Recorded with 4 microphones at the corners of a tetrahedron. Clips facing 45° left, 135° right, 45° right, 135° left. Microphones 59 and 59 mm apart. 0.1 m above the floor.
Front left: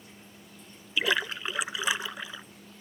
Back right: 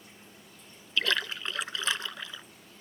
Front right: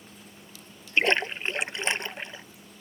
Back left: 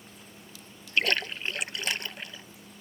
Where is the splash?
15° right.